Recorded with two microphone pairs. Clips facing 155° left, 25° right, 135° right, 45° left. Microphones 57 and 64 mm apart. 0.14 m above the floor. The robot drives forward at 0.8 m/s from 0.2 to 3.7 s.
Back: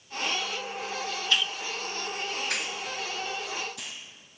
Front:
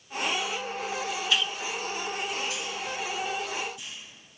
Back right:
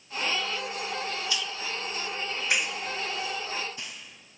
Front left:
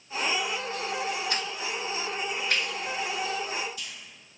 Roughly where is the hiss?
Ahead left.